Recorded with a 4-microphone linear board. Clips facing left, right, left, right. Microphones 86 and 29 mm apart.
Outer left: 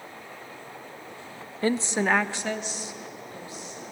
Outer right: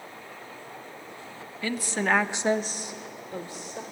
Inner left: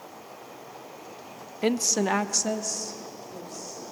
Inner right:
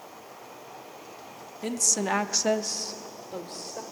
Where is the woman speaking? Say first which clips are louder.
Outer left 3 dB, inner left 4 dB; 35° left (ahead or behind), 0.8 m; by 3.8 s 65° right (ahead or behind), 1.7 m.